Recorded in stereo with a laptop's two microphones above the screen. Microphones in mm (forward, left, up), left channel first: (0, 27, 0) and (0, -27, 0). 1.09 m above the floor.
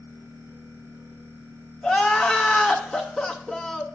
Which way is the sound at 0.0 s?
60° right (ahead or behind).